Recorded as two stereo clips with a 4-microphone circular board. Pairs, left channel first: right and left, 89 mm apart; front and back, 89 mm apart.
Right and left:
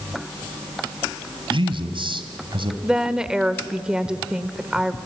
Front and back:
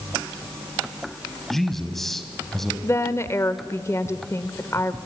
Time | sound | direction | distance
1.5 | a man speaking | 85° left | 2 m
2.8 | a woman speaking | 15° left | 1.0 m